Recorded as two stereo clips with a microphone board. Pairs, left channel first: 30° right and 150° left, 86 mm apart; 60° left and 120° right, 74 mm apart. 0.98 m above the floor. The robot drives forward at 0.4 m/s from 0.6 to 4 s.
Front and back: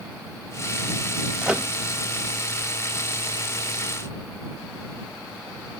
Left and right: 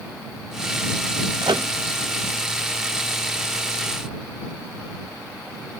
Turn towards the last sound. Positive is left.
turn(degrees=-165)